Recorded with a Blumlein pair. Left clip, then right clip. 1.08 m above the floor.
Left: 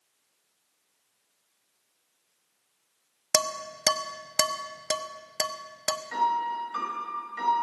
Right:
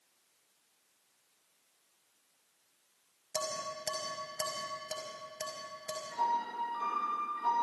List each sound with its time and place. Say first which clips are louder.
3.3 s dishes clattering: left 9 dB; 45° left, 1.1 m
6.1 s a piano: left 6 dB; 40° left, 4.5 m